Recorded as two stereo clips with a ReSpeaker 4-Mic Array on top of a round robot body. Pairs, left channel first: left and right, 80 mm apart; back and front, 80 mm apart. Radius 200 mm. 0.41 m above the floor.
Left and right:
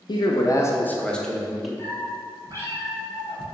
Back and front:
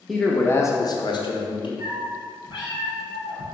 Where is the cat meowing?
150° left, 2.5 m.